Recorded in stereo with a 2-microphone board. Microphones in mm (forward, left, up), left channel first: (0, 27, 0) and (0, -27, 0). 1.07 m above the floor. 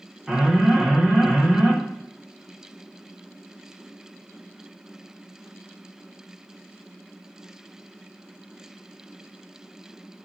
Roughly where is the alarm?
Centre.